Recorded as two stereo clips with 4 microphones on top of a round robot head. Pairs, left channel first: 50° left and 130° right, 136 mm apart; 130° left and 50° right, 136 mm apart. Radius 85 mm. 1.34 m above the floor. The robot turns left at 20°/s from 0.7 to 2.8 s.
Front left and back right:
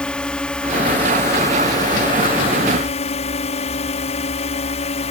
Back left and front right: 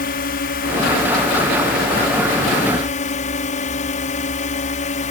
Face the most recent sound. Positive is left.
turn(degrees=95)